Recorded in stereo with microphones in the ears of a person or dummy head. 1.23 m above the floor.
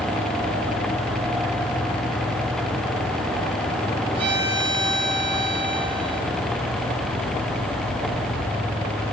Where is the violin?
25° right (ahead or behind), 3.5 m.